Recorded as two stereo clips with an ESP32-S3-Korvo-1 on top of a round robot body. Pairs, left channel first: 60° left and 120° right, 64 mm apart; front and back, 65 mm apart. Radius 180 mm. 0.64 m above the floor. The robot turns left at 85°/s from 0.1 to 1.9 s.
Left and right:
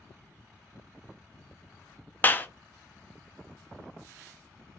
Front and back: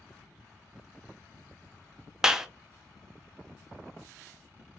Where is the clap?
105° left, 0.6 m.